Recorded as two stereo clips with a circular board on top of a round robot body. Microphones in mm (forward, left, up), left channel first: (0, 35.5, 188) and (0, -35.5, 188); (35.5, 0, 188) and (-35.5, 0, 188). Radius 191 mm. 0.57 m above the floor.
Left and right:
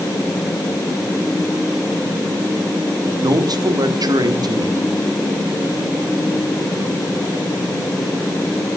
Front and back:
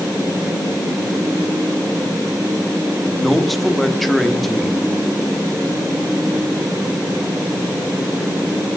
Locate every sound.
3.2 s a man speaking: 90° right, 1.6 m